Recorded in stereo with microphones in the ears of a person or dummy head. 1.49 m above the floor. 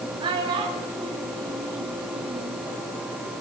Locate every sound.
0.2 s a child speaking: 25° right (ahead or behind), 1.9 m